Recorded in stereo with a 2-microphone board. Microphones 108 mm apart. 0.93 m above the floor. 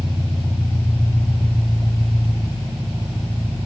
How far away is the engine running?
About 7.5 m.